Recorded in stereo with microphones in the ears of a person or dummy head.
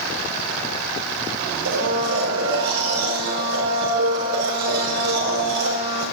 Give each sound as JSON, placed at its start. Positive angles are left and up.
{"t": 1.6, "sound": "a blender", "side_deg": -85, "distance_m": 5.0}